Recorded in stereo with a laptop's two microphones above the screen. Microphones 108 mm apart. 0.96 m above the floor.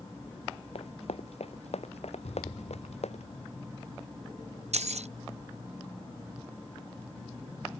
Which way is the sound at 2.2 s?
85° left.